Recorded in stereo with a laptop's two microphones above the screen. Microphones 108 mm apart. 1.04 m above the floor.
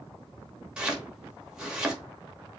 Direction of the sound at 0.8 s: 5° right (ahead or behind).